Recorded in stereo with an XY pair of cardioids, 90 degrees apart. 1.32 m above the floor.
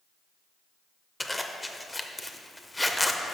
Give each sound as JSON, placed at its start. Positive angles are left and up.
{"t": 1.2, "sound": "a zipper", "azimuth_deg": 10, "distance_m": 0.6}